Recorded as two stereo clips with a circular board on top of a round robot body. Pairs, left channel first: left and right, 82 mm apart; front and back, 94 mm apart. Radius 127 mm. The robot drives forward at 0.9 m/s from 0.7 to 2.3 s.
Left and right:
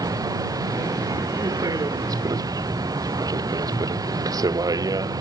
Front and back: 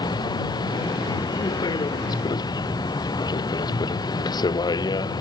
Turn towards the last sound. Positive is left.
turn(degrees=-45)